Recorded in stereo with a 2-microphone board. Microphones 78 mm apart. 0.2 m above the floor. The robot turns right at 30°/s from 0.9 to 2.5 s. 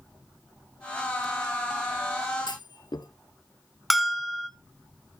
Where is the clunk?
70° left (ahead or behind), 1.0 m.